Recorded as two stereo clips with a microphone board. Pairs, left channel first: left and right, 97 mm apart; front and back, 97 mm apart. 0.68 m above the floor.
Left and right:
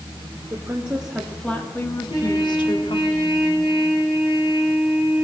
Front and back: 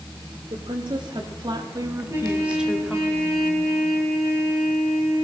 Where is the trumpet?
120° left, 8 m.